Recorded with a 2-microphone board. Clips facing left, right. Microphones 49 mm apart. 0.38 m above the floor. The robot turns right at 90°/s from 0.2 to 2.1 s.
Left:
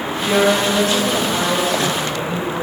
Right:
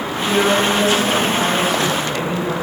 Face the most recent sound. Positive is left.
turn(degrees=-130)